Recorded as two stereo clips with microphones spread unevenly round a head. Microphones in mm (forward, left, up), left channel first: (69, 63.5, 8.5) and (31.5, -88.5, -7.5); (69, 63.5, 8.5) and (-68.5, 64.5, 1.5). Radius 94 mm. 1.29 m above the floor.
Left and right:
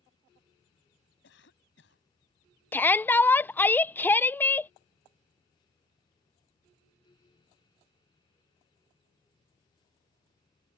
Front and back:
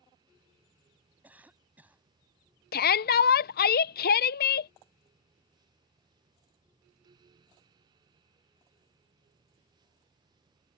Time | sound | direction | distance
1.2 | a cough | 100° left | ?
2.7 | a shout | 5° right | ?